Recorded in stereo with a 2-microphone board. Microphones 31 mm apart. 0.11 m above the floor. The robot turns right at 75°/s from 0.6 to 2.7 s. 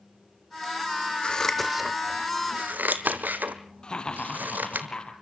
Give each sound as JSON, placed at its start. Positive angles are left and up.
{"t": 1.2, "sound": "scissors", "side_deg": 30, "distance_m": 1.7}
{"t": 3.8, "sound": "laughter", "side_deg": 30, "distance_m": 3.0}